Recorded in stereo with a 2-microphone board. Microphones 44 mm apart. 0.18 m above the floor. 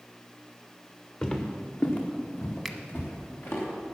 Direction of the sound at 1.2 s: 20° left (ahead or behind).